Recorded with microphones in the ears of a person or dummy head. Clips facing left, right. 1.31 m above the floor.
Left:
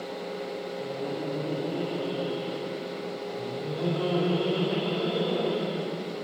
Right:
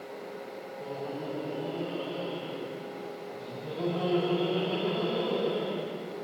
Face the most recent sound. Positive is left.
turn(degrees=70)  # may be behind; listen again after turning